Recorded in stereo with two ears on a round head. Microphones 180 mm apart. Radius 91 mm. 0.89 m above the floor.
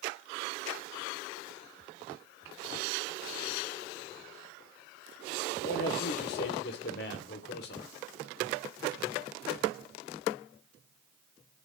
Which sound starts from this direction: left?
A man speaking, at 5.6 s.